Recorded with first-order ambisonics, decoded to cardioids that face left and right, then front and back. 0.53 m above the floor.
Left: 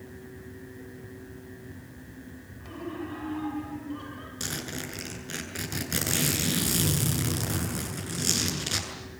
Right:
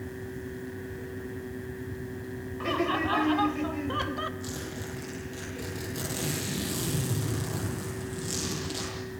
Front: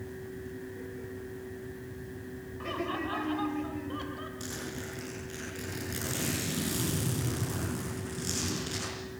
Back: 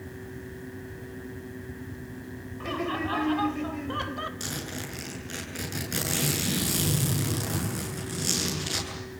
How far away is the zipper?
About 8.5 m.